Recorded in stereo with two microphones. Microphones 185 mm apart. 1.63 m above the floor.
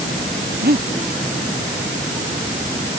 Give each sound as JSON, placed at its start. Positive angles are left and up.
{"t": 0.6, "sound": "breathing", "side_deg": -60}